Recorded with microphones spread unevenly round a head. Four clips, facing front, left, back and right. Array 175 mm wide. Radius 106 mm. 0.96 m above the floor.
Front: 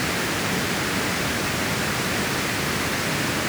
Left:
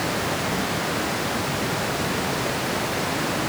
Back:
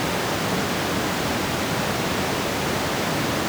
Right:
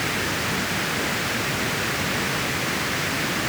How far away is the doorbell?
I don't hear a doorbell.